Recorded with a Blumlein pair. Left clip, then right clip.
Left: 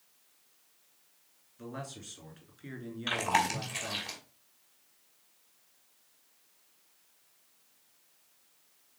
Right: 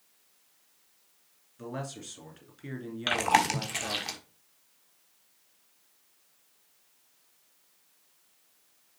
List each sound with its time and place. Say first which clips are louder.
1.6 s a man speaking: right 4 dB; 15° right, 2.5 m
3.1 s chewing: right 4 dB; 30° right, 1.5 m